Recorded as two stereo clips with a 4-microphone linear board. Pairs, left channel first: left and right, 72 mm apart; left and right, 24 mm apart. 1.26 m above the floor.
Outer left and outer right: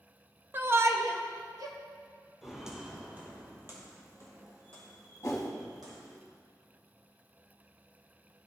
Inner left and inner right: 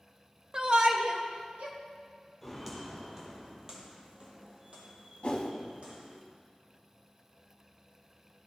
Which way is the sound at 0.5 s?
30° right (ahead or behind).